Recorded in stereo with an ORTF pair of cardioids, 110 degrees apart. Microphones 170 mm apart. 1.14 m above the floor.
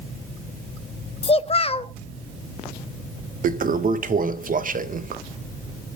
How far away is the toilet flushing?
About 0.6 m.